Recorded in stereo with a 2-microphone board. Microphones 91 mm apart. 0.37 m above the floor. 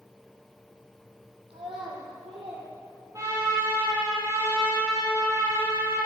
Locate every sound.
1.5 s a child speaking: 75° right (ahead or behind), 5.5 m; by 2.7 s 85° right, 6.5 m
3.1 s a trumpet: 35° right (ahead or behind), 5.5 m